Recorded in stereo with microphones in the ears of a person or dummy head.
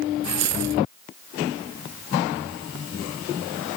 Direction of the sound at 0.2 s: 55° right (ahead or behind).